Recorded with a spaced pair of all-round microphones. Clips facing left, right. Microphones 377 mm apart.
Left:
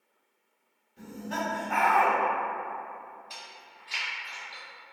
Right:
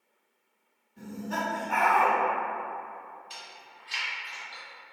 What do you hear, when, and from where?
1.0 s laughter: 55° right (ahead or behind), 2.0 m
3.3 s chewing: 25° right (ahead or behind), 1.0 m